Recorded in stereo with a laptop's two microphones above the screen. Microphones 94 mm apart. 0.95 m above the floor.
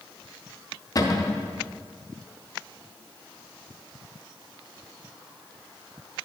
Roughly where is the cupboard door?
Left.